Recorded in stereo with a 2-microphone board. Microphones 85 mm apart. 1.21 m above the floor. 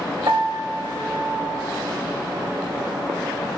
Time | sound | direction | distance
0.3 | a piano | 65° right (ahead or behind) | 1.8 m